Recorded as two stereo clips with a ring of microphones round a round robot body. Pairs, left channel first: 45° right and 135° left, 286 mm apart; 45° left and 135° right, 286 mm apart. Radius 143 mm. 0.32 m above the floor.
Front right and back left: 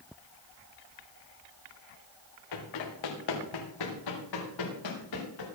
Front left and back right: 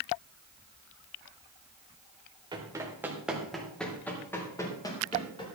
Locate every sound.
2.5 s running footsteps: 60° right, 3 m; by 5.5 s 30° right, 5.5 m